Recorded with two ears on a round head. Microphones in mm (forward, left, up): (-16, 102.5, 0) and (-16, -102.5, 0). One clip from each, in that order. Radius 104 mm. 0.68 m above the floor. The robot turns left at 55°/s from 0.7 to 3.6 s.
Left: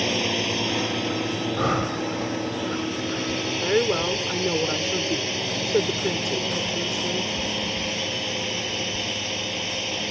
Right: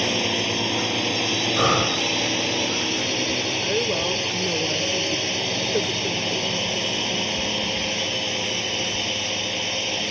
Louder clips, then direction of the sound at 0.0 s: Right 1 dB; 5° right.